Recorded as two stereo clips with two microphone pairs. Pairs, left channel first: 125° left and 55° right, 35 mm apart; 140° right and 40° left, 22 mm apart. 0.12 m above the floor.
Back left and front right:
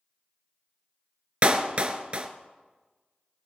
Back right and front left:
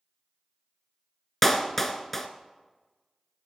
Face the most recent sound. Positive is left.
turn(degrees=-75)